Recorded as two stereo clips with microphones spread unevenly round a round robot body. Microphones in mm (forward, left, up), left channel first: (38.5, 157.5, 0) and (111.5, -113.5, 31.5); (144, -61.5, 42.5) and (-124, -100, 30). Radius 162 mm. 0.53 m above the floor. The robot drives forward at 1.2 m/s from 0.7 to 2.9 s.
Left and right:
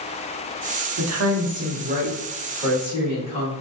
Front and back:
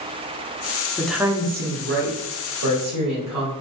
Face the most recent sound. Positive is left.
turn(degrees=-165)